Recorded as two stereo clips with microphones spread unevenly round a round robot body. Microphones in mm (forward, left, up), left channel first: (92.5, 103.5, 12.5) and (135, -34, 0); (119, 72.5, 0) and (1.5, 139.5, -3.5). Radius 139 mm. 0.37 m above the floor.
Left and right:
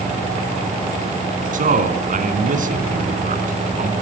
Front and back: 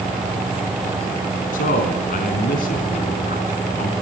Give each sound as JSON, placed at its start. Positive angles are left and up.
{"t": 1.5, "sound": "a man speaking", "azimuth_deg": -55, "distance_m": 3.0}